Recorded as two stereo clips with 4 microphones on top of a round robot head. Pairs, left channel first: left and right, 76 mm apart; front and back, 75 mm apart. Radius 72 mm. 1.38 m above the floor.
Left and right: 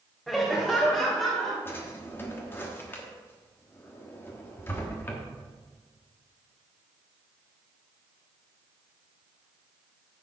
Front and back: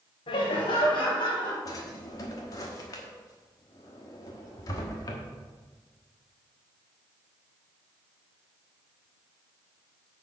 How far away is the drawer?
About 1.2 m.